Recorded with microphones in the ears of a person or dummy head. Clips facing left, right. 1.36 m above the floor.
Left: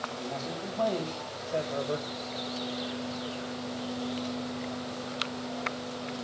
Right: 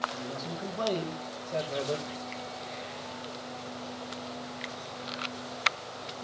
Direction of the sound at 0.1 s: 60° right (ahead or behind).